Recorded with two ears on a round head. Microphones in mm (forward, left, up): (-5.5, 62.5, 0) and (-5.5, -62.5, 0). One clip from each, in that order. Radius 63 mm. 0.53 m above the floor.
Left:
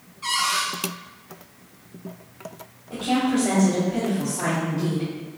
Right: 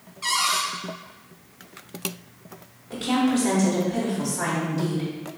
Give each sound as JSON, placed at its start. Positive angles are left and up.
{"t": 0.2, "sound": "a cupboard door", "side_deg": -40, "distance_m": 1.0}
{"t": 2.9, "sound": "a woman speaking", "side_deg": -35, "distance_m": 1.2}